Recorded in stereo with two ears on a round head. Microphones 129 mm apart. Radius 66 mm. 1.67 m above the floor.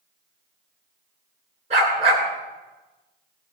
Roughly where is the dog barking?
Right.